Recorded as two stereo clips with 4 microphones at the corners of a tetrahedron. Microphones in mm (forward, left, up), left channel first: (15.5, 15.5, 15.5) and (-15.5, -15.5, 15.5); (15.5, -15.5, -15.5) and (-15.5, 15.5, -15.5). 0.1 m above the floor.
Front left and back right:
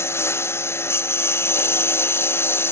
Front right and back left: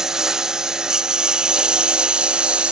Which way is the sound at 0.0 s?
60° left.